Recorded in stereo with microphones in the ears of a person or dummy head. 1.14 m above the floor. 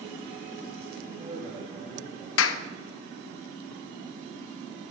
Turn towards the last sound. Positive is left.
turn(degrees=75)  # may be behind; listen again after turning